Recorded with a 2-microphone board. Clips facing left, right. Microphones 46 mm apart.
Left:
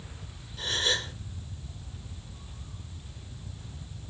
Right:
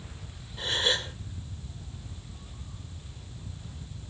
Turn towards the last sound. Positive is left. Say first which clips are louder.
# right 1 dB
turn(degrees=-25)  # may be behind; listen again after turning